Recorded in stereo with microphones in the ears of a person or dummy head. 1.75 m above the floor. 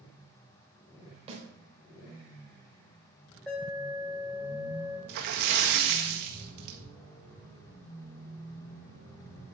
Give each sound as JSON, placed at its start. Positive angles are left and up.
{"t": 1.3, "sound": "a snare drum", "side_deg": -35, "distance_m": 3.5}
{"t": 3.5, "sound": "an alarm", "side_deg": 5, "distance_m": 7.5}
{"t": 5.1, "sound": "a splash", "side_deg": -55, "distance_m": 1.6}